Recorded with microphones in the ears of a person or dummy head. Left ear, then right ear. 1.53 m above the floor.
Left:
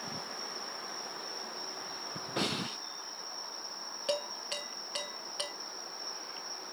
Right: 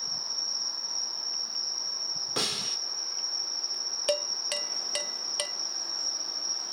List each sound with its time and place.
0.0 s an insect: 55° right (ahead or behind), 0.9 m
2.4 s a snare drum: 85° right, 2 m
4.1 s dishes clattering: 20° right (ahead or behind), 0.6 m